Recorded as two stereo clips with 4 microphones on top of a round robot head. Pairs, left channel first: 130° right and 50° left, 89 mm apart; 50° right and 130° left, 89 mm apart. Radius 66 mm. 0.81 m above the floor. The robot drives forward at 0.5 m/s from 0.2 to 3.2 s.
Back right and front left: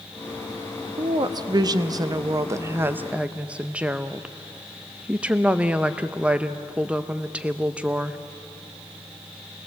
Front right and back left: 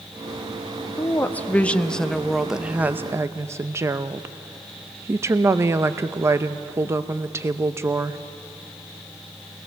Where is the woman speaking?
15° left, 1.2 m; by 8.2 s 115° left, 0.6 m.